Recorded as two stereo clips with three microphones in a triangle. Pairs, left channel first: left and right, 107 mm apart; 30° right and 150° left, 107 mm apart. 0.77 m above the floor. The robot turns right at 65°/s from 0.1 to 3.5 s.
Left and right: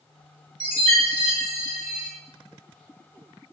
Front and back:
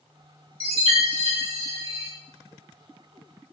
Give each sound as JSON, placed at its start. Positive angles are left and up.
{"t": 0.6, "sound": "a chime", "azimuth_deg": 130, "distance_m": 1.1}